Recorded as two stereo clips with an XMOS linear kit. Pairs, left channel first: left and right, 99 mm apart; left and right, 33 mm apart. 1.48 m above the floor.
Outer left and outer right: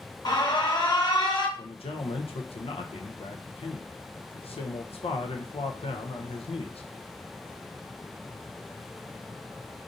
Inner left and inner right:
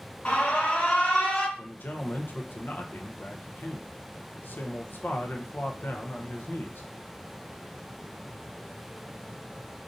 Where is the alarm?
45° left (ahead or behind), 1.0 m.